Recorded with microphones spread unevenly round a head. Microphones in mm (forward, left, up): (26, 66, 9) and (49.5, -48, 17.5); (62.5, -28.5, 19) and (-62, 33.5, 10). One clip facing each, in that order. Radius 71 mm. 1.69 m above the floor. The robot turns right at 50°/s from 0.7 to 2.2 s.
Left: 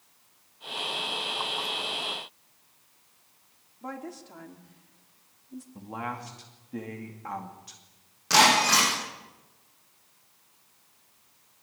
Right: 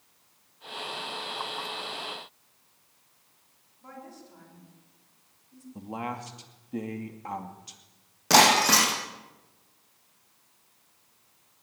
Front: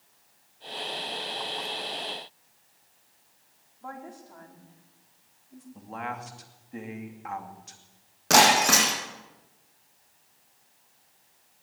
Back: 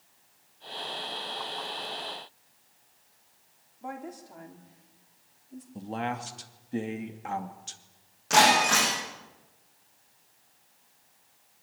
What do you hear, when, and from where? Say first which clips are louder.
3.8 s a woman speaking: left 7 dB, back 2 dB; 80° left, 4.5 m
5.8 s a man speaking: right 2 dB, back 4 dB; 150° right, 2.5 m
8.3 s breaking glass: right 1 dB, front 1 dB; 50° right, 8 m